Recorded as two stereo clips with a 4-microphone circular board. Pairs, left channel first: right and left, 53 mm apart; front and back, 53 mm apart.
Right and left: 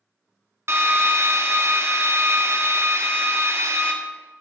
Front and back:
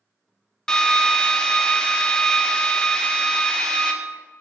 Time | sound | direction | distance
0.7 | a drill | 75° left | 1.0 m